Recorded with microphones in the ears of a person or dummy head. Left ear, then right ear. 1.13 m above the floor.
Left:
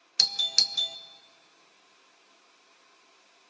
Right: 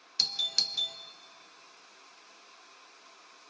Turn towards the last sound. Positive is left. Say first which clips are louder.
# left 5 dB
turn(degrees=15)  # may be behind; listen again after turning